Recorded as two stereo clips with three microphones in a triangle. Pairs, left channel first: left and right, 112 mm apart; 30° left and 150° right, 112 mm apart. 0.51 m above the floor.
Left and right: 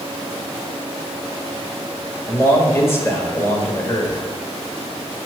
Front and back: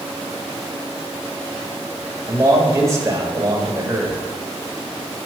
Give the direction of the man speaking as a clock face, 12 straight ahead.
7 o'clock.